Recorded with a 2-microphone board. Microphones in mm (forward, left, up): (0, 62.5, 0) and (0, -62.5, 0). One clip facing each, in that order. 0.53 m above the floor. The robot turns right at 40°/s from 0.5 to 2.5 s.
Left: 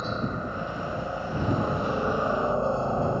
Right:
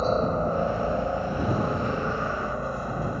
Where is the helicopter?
50° right; by 3.2 s 30° left.